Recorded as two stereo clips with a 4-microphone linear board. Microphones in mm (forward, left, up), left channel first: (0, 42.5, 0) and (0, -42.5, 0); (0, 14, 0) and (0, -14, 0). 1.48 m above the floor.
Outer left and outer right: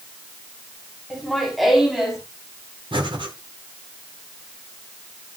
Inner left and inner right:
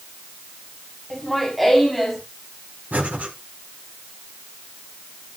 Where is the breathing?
85° right, 5 m.